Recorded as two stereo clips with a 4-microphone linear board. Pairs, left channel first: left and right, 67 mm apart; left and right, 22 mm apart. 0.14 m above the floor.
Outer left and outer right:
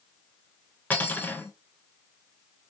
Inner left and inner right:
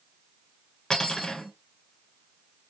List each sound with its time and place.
0.9 s cutlery clinking: 25° left (ahead or behind), 0.8 m